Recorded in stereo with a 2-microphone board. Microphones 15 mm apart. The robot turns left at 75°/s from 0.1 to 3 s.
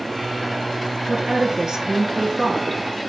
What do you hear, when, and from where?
1.1 s a woman speaking: 60° right, 1.9 m; by 2.8 s 170° left, 1.9 m